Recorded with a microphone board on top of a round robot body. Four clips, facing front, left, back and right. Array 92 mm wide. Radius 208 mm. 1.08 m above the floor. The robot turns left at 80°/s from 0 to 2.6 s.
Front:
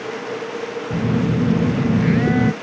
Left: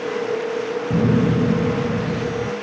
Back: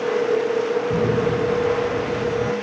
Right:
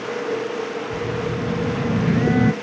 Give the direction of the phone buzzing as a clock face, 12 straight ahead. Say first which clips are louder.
Left 10 dB, front 3 dB; 9 o'clock.